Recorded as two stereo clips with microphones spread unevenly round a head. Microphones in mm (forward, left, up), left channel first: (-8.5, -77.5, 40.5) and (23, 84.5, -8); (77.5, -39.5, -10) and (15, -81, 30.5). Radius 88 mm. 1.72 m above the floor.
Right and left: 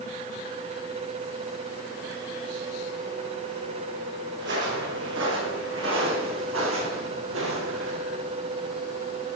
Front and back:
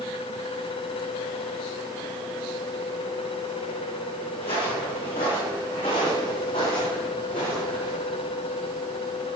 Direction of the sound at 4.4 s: 50° left.